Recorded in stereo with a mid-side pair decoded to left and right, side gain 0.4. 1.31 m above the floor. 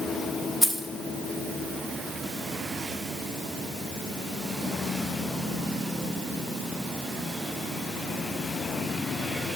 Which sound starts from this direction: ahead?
Keys jangling, at 0.6 s.